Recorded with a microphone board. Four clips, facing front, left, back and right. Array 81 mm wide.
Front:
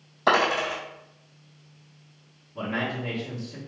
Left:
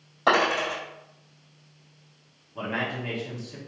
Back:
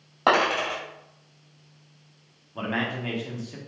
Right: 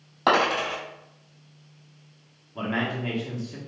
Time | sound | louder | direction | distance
0.3 | a dropped coin | right 1 dB, even | 160° right | 1.9 m
2.5 | a man speaking | right 2 dB, back 1 dB | 160° right | 1.0 m